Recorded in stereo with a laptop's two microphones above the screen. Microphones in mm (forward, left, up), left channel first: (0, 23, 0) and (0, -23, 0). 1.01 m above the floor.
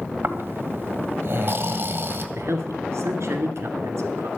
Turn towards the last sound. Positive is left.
turn(degrees=-70)  # may be behind; listen again after turning